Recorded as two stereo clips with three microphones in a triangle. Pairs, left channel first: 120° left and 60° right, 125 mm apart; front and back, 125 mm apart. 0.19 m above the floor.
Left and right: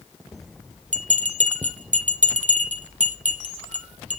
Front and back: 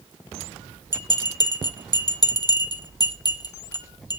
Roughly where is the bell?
Ahead right.